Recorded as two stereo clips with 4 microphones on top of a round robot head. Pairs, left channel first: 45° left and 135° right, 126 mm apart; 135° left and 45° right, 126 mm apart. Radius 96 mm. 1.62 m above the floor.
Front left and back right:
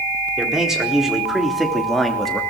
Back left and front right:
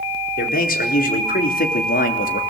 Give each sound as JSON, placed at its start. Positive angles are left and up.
{"t": 0.4, "sound": "a man speaking", "azimuth_deg": 135, "distance_m": 4.5}